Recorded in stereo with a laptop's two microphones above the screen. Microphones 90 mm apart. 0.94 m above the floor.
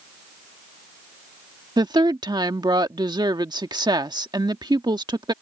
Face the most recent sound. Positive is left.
turn(degrees=-55)  # may be behind; listen again after turning